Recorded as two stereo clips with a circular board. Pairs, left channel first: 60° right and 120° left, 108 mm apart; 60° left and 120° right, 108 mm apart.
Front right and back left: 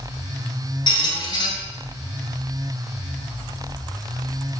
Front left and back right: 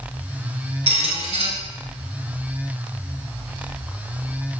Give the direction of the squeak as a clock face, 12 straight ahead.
3 o'clock.